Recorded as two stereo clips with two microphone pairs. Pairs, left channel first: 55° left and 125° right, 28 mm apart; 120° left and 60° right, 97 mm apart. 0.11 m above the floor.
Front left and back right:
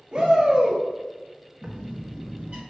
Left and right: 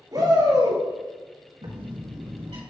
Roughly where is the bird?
Ahead right.